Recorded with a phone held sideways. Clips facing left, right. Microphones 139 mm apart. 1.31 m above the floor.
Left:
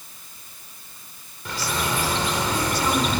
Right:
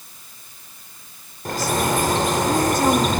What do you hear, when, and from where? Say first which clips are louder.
1.4 s a bird: right 6 dB; 45° right (ahead or behind), 1.3 m